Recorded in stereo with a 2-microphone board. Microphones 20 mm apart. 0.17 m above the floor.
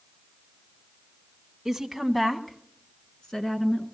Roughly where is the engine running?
No engine running in this recording.